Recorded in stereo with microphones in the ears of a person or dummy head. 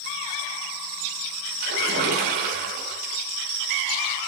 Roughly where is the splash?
Right.